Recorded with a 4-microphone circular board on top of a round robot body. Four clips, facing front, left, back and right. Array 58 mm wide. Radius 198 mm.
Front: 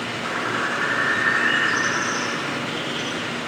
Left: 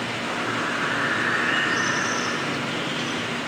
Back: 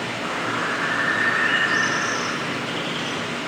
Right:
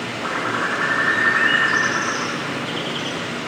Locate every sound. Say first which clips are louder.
0.2 s a bird: right 6 dB, front 1 dB; 105° right, 2.5 m